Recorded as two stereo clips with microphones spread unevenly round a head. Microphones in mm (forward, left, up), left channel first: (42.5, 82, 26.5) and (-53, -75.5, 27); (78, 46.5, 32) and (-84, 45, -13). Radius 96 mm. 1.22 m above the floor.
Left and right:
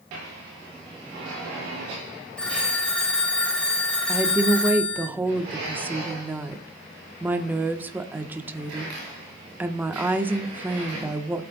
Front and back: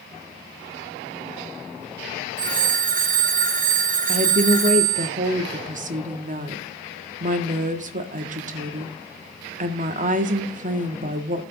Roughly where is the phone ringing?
Behind left.